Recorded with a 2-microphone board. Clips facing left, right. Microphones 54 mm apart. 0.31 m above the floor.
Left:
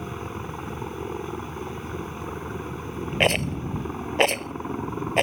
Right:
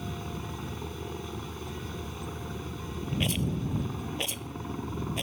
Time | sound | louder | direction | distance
0.0 | a helicopter | left 4 dB | 30° left (ahead or behind) | ?
3.2 | a rattle | left 9 dB | 60° left (ahead or behind) | ?